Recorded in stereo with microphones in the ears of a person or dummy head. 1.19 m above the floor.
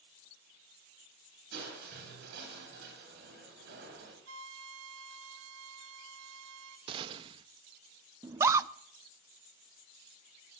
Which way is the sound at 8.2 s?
15° right (ahead or behind).